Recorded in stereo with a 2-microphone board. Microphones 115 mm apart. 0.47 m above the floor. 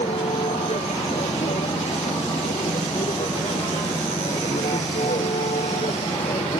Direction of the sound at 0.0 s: 80° left.